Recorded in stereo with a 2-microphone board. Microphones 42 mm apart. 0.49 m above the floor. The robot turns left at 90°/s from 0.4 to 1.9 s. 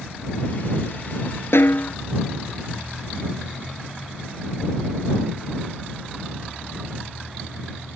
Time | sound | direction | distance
1.5 | a snare drum | 75° left | ?